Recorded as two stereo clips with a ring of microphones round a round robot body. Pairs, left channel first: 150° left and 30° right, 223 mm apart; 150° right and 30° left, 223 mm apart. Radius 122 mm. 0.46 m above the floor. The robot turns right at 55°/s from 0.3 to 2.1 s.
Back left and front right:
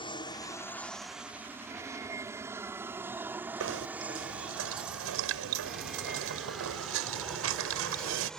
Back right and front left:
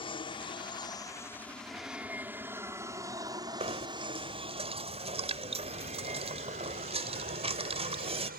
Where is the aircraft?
Straight behind; by 8.4 s 65° left.